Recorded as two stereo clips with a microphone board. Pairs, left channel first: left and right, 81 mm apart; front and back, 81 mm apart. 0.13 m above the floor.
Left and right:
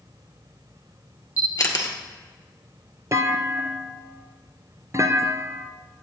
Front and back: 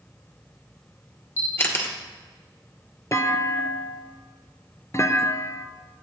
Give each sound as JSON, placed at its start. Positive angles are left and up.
{"t": 1.4, "sound": "a camera shutter", "azimuth_deg": 50, "distance_m": 1.9}
{"t": 3.1, "sound": "a clunk", "azimuth_deg": -45, "distance_m": 0.7}